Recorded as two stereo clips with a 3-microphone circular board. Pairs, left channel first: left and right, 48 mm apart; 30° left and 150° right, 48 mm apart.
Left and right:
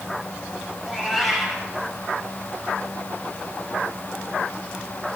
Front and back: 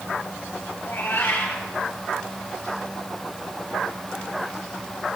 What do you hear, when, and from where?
0.8 s a cat meowing: straight ahead, 5 m